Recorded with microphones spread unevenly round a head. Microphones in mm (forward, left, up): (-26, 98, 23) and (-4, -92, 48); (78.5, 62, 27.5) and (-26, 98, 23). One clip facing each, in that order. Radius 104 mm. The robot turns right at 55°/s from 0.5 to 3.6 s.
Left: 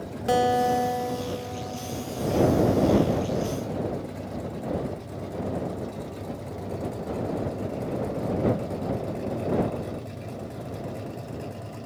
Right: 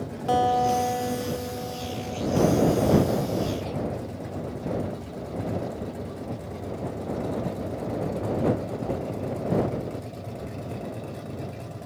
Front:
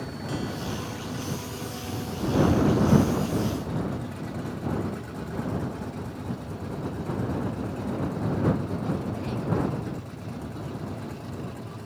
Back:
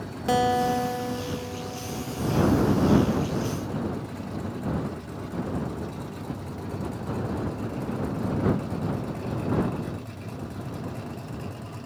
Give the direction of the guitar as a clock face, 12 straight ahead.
7 o'clock.